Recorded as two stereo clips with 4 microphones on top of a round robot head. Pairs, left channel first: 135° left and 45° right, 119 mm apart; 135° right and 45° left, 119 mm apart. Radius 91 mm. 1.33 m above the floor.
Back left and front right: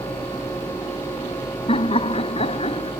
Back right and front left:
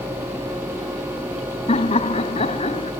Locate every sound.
1.7 s laughter: straight behind